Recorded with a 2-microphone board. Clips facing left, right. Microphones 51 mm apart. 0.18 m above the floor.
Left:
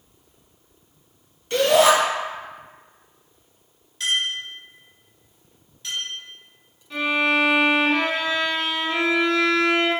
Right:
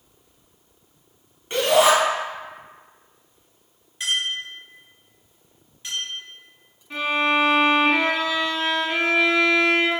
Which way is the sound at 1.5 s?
20° right (ahead or behind).